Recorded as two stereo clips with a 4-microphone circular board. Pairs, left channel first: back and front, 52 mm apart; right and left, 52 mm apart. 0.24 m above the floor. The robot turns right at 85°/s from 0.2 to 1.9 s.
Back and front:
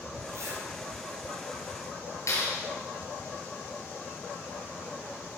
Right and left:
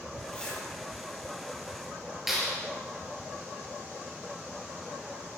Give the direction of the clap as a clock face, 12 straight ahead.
6 o'clock.